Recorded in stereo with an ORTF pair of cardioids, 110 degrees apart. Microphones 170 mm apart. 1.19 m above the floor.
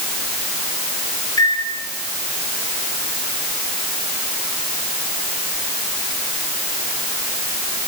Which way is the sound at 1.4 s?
20° left.